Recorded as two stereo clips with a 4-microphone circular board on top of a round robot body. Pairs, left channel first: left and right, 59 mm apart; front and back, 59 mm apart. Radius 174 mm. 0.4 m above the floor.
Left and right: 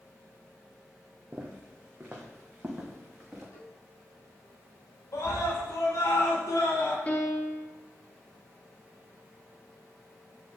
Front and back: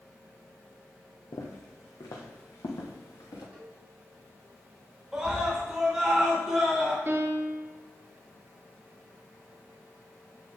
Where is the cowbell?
115° left, 2.5 m.